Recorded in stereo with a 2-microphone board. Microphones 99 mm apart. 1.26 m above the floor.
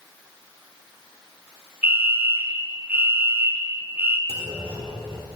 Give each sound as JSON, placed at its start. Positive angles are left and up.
{"t": 1.8, "sound": "a fire alarm", "side_deg": -20, "distance_m": 0.8}
{"t": 4.3, "sound": "a clunk", "side_deg": -65, "distance_m": 1.5}